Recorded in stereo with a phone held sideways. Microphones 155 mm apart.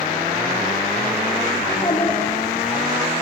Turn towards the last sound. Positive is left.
turn(degrees=20)  # may be behind; listen again after turning